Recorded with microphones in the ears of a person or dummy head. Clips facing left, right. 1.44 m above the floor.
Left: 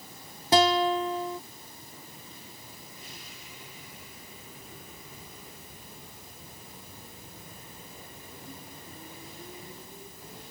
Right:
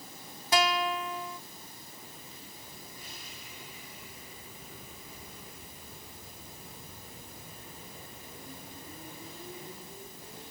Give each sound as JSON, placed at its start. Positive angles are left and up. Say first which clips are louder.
{"t": 0.5, "sound": "a guitar", "louder": "left 6 dB", "side_deg": 25}